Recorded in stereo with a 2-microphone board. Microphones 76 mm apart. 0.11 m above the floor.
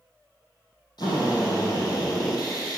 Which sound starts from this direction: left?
A drill, at 1.0 s.